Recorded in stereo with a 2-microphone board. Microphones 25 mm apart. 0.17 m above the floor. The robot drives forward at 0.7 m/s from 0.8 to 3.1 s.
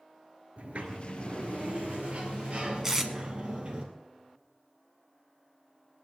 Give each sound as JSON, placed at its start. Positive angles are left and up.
{"t": 0.6, "sound": "a sliding door", "side_deg": -65, "distance_m": 1.9}
{"t": 2.8, "sound": "tape being pulled", "side_deg": -20, "distance_m": 1.4}